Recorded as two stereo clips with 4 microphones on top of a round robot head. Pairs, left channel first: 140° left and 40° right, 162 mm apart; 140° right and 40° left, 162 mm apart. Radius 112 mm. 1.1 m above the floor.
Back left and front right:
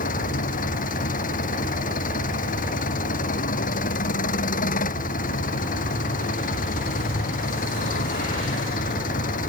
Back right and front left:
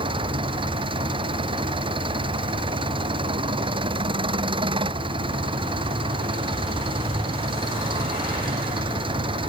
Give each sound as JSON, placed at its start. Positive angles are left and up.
{"t": 0.0, "sound": "an engine running", "azimuth_deg": 100}